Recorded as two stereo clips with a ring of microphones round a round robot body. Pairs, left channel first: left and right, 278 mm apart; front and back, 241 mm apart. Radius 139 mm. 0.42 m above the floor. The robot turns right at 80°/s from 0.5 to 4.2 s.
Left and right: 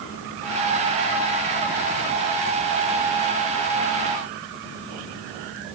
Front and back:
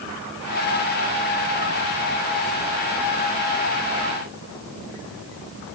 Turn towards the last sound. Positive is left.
No sound to turn to.